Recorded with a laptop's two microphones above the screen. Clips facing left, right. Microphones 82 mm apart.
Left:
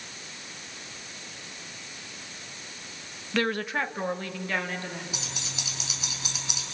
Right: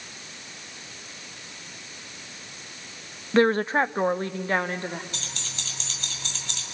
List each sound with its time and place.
3.3 s a woman speaking: 30° right (ahead or behind), 0.5 m; by 5.0 s 35° right (ahead or behind), 2 m
5.1 s keys jangling: 10° left (ahead or behind), 4.5 m